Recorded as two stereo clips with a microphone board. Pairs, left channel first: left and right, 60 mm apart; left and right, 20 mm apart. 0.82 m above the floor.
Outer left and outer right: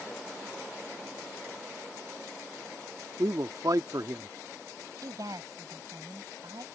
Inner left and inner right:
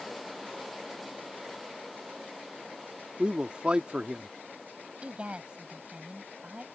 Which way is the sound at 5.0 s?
80° right.